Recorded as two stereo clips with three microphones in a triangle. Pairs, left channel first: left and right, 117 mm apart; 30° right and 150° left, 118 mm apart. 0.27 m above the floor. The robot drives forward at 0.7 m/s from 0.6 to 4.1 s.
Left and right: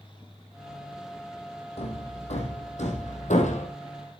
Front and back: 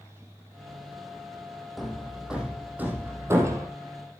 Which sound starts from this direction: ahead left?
Hammering, at 1.8 s.